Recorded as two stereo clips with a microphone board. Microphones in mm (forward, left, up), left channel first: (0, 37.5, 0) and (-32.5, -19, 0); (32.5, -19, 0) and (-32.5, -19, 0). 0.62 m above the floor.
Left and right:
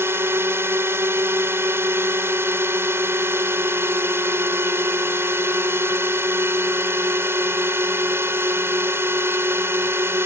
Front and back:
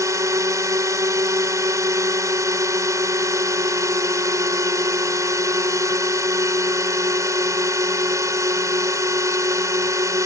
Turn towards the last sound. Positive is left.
turn(degrees=-165)